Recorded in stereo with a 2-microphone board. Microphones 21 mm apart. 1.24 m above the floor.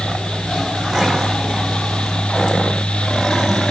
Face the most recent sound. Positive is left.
No sound to turn to.